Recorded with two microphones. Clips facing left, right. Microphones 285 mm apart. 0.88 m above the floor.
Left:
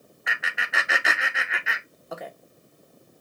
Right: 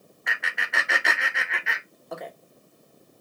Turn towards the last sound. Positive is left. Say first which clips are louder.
# even
turn(degrees=0)  # may be behind; listen again after turning